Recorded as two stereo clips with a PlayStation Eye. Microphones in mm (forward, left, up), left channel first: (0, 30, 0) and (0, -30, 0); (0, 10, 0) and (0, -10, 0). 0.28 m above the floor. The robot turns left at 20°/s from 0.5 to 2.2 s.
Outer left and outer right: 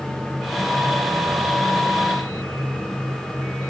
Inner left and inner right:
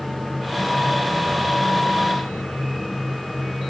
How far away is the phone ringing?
I don't hear a phone ringing.